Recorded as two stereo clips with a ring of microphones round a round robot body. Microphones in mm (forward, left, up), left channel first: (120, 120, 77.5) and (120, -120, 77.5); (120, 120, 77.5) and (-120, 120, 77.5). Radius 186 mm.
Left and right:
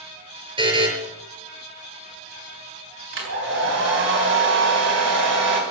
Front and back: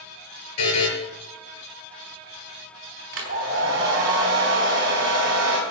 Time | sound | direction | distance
0.6 | a buzzer | 20° right | 6.5 m
3.1 | a hair dryer | 125° right | 3.5 m